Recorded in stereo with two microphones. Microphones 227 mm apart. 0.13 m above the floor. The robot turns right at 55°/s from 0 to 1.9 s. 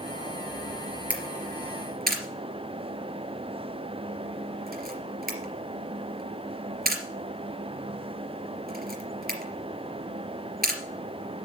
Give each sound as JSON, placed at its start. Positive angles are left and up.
{"t": 1.1, "sound": "a camera shutter", "side_deg": -5, "distance_m": 3.0}